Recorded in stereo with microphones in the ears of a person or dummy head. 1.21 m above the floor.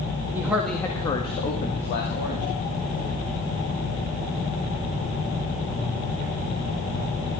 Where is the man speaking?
20° right (ahead or behind), 2.0 m; by 2.5 s 50° left (ahead or behind), 3 m.